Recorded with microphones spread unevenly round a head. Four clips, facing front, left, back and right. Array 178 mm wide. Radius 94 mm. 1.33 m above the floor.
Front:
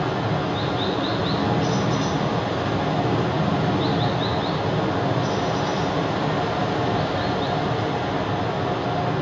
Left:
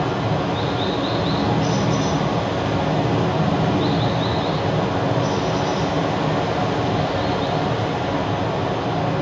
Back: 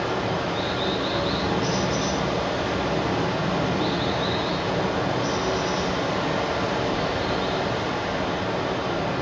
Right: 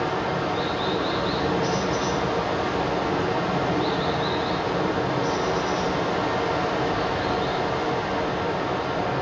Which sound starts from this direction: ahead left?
Running water, at 0.0 s.